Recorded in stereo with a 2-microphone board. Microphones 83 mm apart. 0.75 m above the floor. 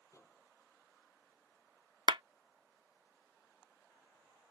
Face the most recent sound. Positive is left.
turn(degrees=-75)  # may be behind; listen again after turning